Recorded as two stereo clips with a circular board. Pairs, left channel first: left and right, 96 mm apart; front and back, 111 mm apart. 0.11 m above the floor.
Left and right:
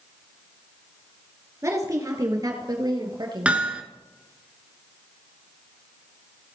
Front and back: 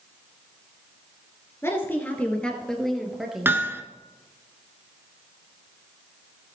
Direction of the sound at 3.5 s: 145° right.